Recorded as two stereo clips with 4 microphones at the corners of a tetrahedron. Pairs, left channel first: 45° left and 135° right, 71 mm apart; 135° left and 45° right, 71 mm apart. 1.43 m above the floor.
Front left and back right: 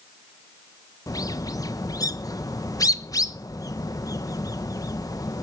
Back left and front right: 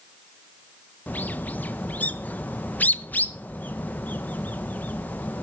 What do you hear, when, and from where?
1.1 s a bird: 70° left, 1.0 m